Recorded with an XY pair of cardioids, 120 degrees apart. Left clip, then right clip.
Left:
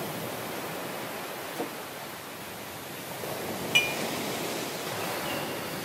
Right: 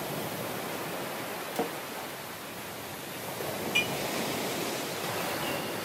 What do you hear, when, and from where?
1.6 s a splash: 70° right, 1.0 m
3.8 s dishes clattering: 55° left, 0.8 m